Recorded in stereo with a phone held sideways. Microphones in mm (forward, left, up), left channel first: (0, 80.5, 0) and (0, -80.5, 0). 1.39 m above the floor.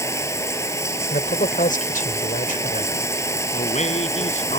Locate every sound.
0.0 s running water: 20° left (ahead or behind)
1.1 s a man speaking: 55° left (ahead or behind)
3.5 s a man speaking: 45° left (ahead or behind)